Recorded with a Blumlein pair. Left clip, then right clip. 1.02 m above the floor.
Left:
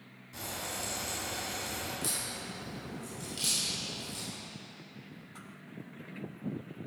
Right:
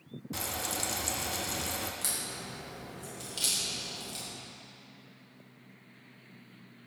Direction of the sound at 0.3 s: 30° right.